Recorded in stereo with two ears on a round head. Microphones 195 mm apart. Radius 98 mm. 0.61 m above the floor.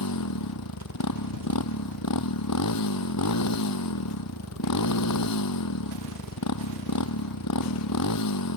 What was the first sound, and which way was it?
A motorcycle, 90° left.